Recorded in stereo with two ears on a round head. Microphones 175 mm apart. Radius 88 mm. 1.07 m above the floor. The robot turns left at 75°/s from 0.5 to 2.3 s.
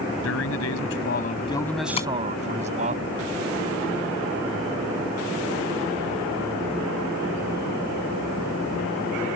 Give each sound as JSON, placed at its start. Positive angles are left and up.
{"t": 0.2, "sound": "a man speaking", "azimuth_deg": 100}
{"t": 2.0, "sound": "tapping", "side_deg": 30}